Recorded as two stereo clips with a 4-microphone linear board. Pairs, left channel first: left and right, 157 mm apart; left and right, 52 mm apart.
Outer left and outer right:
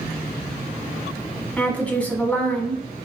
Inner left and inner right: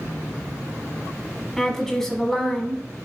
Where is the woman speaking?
10° left (ahead or behind), 1.0 m.